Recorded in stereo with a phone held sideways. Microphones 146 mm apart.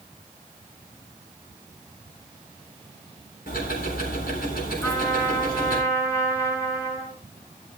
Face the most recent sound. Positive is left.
turn(degrees=20)  # may be behind; listen again after turning